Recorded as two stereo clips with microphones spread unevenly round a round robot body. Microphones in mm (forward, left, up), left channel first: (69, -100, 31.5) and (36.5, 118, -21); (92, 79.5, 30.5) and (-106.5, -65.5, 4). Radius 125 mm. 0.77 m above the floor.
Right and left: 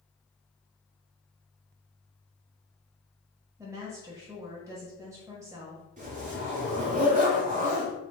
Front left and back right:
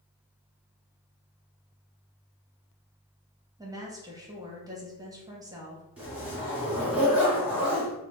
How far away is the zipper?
About 1.7 m.